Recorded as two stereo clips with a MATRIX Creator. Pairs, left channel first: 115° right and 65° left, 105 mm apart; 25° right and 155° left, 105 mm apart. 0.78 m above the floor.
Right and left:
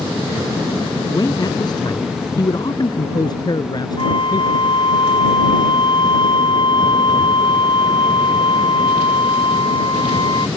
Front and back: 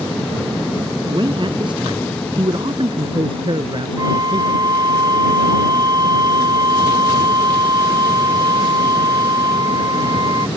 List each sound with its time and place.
1.1 s a man speaking: 160° right
4.0 s a flute: 150° right